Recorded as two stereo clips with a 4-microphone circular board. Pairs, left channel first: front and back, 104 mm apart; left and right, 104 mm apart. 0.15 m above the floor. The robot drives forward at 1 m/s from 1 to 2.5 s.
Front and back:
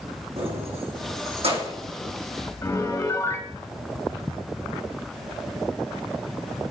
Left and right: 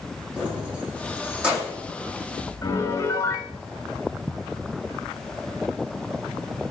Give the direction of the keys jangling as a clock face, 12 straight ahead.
6 o'clock.